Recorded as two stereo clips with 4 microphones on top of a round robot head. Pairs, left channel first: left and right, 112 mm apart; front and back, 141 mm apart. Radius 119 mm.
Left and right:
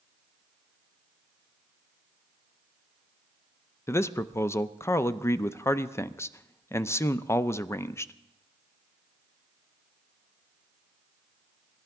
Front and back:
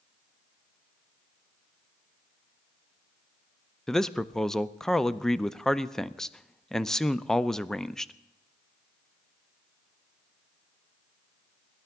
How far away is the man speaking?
About 0.5 m.